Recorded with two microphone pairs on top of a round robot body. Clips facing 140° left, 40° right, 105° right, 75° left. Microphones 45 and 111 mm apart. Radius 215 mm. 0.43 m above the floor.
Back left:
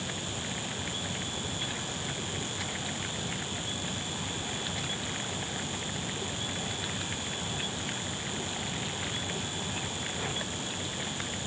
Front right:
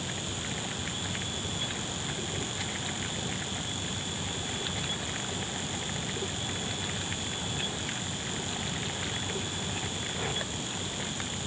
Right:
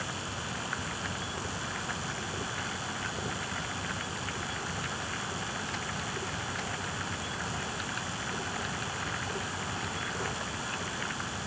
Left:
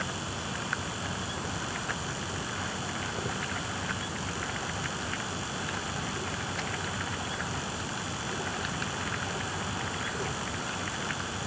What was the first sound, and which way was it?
Only background noise.